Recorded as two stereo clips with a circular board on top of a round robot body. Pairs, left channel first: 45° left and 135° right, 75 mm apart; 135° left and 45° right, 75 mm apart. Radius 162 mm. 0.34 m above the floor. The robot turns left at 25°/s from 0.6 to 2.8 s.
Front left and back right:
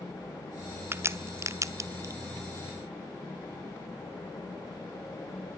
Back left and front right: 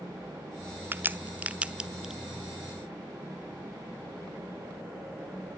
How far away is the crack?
About 1.1 m.